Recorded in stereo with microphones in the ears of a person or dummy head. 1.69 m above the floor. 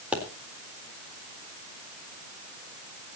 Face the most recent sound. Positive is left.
turn(degrees=-5)  # may be behind; listen again after turning